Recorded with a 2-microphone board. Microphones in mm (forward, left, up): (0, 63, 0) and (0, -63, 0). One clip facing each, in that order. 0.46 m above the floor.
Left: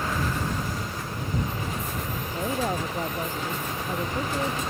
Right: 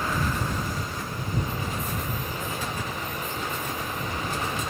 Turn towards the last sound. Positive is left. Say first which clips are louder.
# left 5 dB
turn(degrees=45)  # may be behind; listen again after turning